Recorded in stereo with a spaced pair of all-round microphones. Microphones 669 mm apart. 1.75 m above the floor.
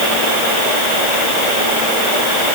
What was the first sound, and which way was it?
Only background noise.